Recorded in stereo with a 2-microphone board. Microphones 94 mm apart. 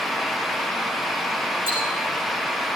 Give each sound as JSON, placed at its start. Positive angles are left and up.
{"t": 1.7, "sound": "ticking", "side_deg": -70, "distance_m": 10.0}